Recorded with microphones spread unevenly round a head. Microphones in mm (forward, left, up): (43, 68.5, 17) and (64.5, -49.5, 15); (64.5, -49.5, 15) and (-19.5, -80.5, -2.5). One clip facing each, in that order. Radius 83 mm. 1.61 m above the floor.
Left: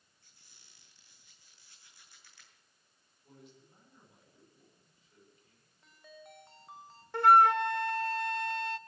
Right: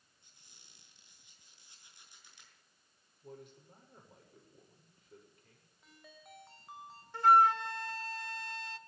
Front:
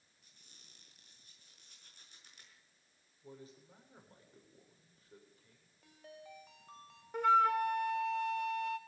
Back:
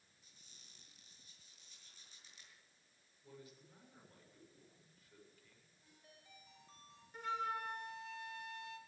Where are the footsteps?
I don't hear footsteps.